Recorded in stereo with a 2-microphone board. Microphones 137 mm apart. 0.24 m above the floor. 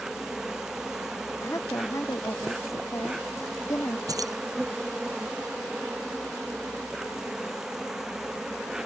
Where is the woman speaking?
25° left (ahead or behind).